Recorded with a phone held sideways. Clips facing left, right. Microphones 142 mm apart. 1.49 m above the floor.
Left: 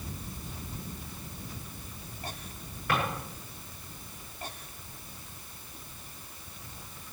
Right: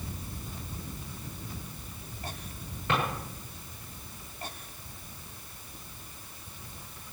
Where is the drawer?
20° right (ahead or behind), 9.5 m.